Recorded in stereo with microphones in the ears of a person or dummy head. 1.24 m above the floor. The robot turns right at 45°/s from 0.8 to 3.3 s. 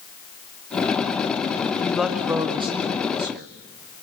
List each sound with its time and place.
1.8 s a woman speaking: 170° left, 2.0 m; by 3.5 s 120° right, 2.0 m